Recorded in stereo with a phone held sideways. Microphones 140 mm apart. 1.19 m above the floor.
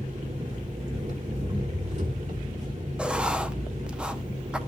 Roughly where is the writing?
Centre.